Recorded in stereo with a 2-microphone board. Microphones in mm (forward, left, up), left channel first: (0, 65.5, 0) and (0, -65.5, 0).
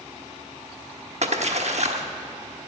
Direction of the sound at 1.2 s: 60° right (ahead or behind).